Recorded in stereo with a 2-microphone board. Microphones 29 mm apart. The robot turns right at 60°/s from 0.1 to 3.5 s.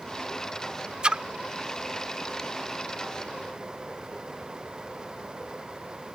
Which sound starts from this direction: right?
A splash, at 1.0 s.